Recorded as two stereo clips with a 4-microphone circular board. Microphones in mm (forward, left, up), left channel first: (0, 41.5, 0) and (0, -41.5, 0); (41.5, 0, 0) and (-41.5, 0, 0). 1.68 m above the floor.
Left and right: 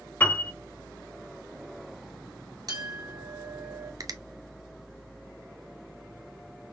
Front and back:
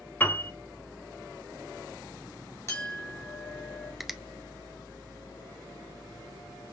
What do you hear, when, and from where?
0.2 s a piano: 45° left, 1.3 m
2.7 s a clink: 55° right, 2.5 m
4.0 s a finger snap: 95° right, 0.6 m